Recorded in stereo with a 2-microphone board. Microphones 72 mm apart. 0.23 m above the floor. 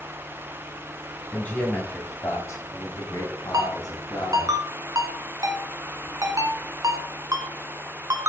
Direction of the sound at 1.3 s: 20° left (ahead or behind).